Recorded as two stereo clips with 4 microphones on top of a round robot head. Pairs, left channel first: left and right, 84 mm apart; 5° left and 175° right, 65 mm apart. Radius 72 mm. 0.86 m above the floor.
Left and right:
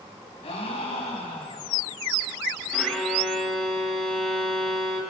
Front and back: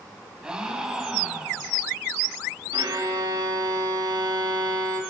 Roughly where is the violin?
Behind.